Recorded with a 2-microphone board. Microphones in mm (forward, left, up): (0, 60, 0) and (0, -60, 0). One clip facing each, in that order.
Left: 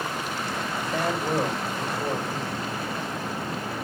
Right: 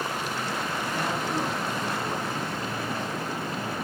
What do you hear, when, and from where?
0.9 s a man speaking: 85° left, 5 m